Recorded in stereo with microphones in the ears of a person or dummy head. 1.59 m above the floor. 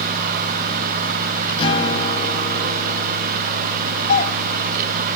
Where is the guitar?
35° left (ahead or behind), 3 m.